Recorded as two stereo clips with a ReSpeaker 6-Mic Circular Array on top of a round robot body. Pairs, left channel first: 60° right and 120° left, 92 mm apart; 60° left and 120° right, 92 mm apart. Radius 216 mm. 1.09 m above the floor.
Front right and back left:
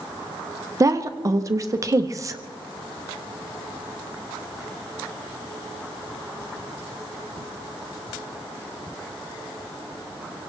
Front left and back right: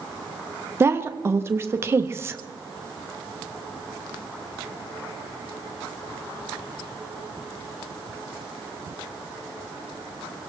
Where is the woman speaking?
175° left, 0.8 m.